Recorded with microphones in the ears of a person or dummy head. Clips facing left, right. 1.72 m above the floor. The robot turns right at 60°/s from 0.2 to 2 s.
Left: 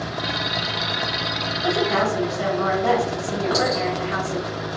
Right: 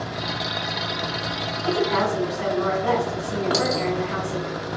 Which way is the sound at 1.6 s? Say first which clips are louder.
Left 1 dB; 70° left (ahead or behind).